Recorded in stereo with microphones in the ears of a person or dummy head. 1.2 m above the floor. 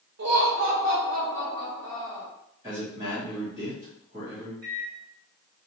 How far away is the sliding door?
No sliding door in this recording.